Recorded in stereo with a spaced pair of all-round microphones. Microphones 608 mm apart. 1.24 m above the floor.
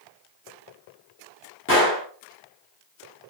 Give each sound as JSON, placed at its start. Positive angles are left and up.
{"t": 1.7, "sound": "a gunshot", "side_deg": 20, "distance_m": 0.8}